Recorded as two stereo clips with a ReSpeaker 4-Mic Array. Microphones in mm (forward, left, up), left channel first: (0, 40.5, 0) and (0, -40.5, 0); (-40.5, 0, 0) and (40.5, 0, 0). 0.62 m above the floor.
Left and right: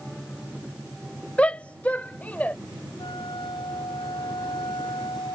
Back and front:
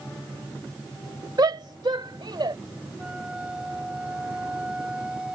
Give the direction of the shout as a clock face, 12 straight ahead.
11 o'clock.